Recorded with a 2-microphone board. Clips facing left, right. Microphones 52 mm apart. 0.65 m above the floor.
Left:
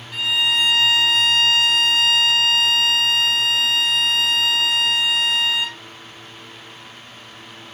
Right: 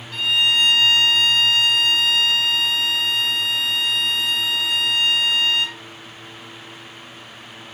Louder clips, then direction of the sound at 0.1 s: Right 1 dB; 10° left (ahead or behind).